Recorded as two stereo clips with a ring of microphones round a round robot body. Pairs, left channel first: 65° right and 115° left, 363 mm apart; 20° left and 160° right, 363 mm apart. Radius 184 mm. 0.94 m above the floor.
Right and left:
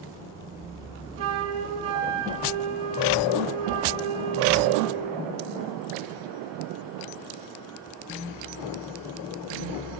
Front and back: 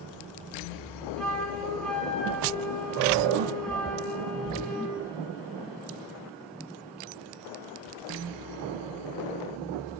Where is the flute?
110° left, 9 m.